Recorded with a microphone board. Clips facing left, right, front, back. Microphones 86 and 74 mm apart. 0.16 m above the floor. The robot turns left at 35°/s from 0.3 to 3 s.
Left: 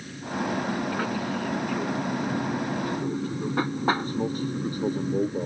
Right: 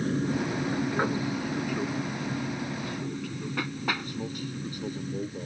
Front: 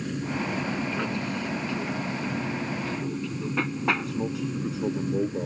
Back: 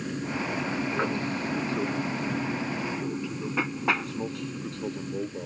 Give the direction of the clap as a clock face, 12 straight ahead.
I don't hear a clap.